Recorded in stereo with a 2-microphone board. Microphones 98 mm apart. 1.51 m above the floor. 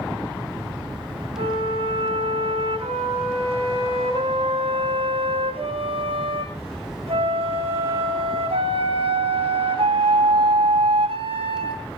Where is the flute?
75° right (ahead or behind), 9.5 m.